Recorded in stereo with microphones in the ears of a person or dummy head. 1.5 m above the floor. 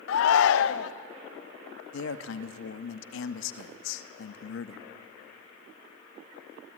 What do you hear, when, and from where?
0.1 s a shout: 85° left, 0.6 m
1.9 s a man speaking: 80° left, 0.8 m